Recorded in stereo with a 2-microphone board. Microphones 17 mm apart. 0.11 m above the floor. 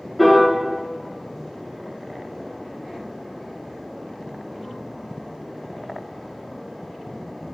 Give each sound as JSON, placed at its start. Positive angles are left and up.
{"t": 0.2, "sound": "a piano", "side_deg": 0, "distance_m": 0.7}